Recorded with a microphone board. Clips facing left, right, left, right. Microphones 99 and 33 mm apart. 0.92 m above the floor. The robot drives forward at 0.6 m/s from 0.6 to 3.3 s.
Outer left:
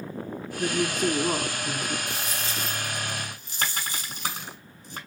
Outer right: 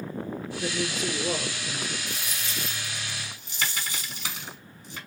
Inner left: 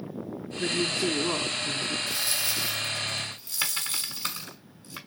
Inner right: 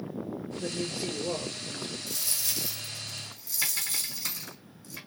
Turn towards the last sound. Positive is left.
turn(degrees=45)  # may be behind; listen again after turning